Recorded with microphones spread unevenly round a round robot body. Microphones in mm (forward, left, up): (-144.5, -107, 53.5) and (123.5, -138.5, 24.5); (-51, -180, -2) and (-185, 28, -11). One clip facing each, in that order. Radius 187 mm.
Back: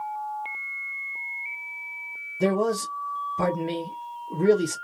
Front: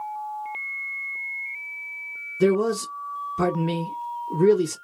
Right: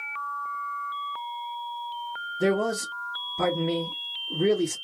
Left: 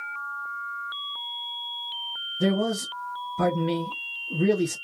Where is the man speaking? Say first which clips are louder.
Front 4 dB, even; 45° left, 0.9 m.